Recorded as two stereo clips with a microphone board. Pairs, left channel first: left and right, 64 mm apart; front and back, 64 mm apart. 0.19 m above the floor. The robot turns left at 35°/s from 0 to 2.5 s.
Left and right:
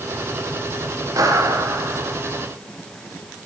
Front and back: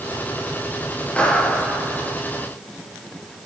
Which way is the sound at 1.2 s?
70° right.